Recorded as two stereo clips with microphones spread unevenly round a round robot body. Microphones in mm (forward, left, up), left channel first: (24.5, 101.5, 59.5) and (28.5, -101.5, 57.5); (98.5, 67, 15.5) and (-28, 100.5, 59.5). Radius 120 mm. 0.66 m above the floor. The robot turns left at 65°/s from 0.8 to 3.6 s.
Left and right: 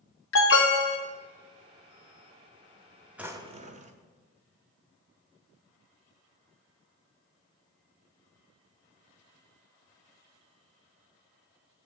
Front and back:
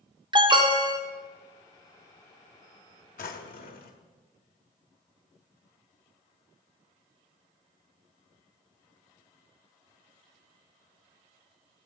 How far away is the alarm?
About 1.5 m.